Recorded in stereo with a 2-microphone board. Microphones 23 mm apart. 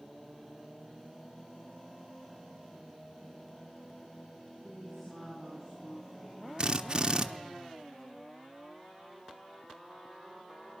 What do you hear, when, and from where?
4.6 s a woman speaking: 15° left (ahead or behind), 10 m
6.6 s a drill: 35° right (ahead or behind), 0.6 m